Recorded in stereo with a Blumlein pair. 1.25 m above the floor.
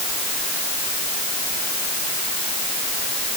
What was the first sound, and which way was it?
Only background noise.